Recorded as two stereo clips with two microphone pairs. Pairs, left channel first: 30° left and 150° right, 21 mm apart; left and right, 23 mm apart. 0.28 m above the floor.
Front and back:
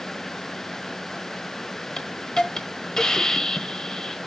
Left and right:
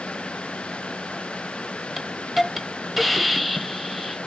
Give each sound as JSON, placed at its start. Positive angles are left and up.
{"t": 2.0, "sound": "a hiss", "azimuth_deg": -5, "distance_m": 1.1}